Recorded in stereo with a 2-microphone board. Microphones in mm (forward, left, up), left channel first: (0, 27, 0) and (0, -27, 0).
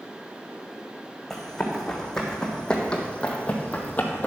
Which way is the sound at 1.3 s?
5° left (ahead or behind).